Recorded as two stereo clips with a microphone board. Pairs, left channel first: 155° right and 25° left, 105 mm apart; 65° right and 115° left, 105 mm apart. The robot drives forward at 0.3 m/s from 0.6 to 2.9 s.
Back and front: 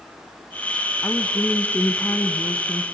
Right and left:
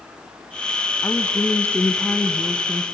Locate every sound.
1.0 s a woman speaking: 90° right, 1.1 m; by 2.9 s 145° right, 1.2 m